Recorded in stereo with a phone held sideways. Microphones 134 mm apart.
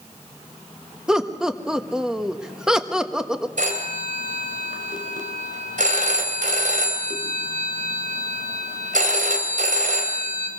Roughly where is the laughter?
Centre.